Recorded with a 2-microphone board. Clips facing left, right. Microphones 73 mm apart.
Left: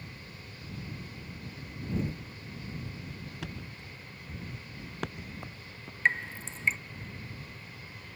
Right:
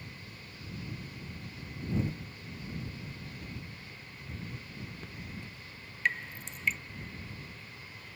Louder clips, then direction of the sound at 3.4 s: Left 3 dB; 85° left.